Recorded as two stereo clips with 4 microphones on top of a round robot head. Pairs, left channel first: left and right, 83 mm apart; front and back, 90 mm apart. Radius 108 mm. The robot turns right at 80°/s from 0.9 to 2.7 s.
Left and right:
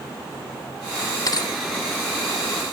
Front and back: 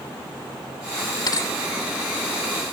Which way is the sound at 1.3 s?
45° left.